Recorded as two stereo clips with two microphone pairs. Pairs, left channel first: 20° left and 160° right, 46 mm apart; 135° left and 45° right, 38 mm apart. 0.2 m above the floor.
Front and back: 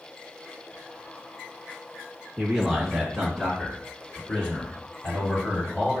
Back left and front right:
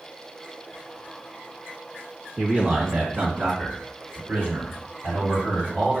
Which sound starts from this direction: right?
A man speaking, at 2.4 s.